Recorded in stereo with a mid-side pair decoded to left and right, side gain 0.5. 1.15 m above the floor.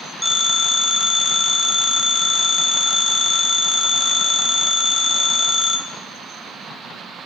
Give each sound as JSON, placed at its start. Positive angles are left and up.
{"t": 0.2, "sound": "a phone ringing", "azimuth_deg": 10, "distance_m": 0.7}